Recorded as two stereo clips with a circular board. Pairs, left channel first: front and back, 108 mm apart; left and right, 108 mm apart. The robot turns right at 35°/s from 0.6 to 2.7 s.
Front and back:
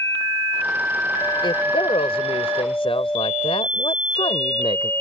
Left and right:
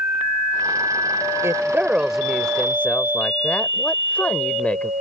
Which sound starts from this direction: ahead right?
A woman speaking, at 1.4 s.